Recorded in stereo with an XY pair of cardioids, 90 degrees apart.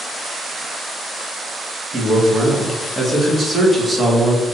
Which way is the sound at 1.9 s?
30° right.